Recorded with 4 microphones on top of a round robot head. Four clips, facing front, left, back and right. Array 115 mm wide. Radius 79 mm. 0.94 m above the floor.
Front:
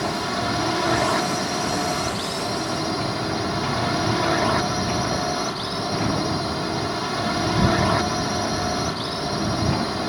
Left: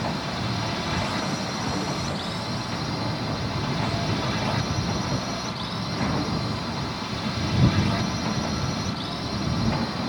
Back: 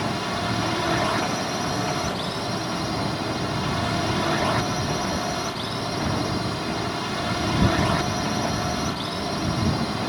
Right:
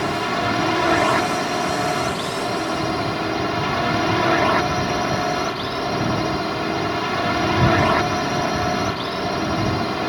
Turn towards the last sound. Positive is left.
turn(degrees=-75)